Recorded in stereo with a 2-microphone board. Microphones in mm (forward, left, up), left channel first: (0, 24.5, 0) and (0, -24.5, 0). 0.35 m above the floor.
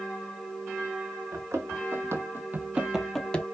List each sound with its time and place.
1.3 s running footsteps: 75° right (ahead or behind), 1.3 m; by 3.4 s 25° left (ahead or behind), 0.6 m